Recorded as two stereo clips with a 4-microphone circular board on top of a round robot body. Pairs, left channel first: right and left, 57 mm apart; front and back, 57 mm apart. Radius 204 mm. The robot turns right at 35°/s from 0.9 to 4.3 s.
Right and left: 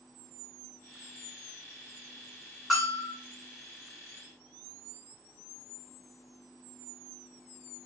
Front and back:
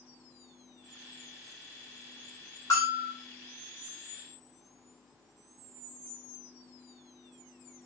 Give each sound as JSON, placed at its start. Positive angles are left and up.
{"t": 2.7, "sound": "a bell", "azimuth_deg": 0, "distance_m": 2.0}